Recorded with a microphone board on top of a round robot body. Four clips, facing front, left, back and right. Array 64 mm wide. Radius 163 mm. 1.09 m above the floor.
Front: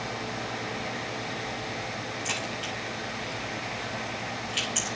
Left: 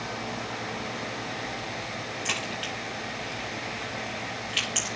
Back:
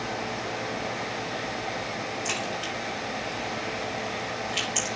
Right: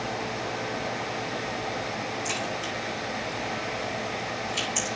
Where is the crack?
90° left, 7 m.